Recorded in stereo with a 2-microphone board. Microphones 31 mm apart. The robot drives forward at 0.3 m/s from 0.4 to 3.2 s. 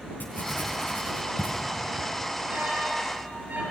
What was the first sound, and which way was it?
Writing, 80° left.